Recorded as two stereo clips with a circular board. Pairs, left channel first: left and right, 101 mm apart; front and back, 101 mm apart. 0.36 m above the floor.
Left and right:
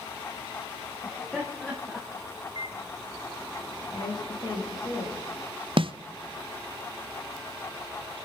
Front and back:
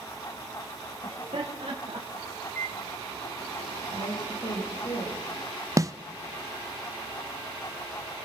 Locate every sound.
1.0 s laughter: straight behind, 2.5 m; by 2.3 s 160° left, 3.5 m
2.5 s a microwave: 65° right, 2 m
3.9 s a woman speaking: 45° left, 7.5 m
5.8 s a snare drum: 120° right, 0.6 m